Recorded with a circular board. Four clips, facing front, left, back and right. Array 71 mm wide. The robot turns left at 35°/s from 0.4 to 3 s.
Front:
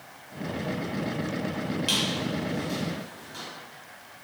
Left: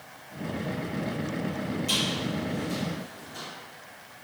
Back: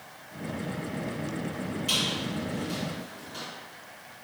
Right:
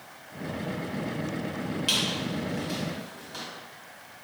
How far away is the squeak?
About 1.5 m.